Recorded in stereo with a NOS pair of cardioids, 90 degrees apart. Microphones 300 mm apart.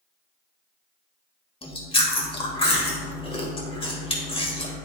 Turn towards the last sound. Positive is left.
turn(degrees=20)